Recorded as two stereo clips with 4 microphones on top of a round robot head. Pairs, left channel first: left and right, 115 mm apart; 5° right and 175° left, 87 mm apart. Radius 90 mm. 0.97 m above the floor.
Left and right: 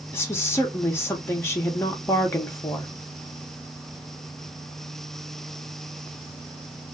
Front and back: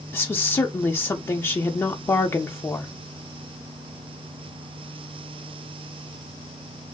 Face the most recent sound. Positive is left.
turn(degrees=35)